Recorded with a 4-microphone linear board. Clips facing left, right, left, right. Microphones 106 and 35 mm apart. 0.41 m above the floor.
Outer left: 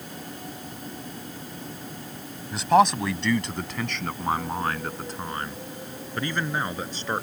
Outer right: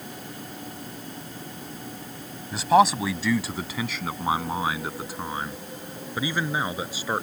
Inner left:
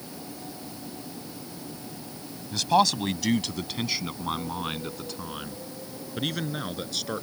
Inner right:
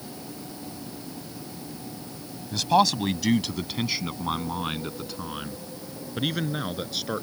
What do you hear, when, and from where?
2.5 s a man speaking: centre (ahead or behind); by 7.2 s 10° right (ahead or behind)